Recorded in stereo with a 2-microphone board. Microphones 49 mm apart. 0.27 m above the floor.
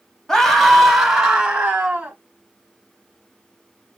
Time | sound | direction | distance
0.3 | a scream | 10° left (ahead or behind) | 1.5 m